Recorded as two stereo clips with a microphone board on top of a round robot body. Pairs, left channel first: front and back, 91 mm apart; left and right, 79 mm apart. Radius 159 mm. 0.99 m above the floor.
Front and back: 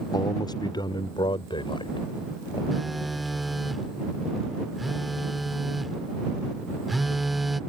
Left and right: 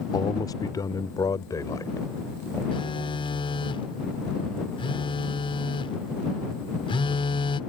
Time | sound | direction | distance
0.1 | a man speaking | 50° left | ?
2.7 | a phone buzzing | 90° left | ?